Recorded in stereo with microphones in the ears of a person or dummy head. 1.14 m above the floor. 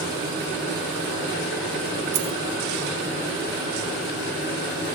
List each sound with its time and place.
2.1 s a dropped coin: 35° right (ahead or behind), 2 m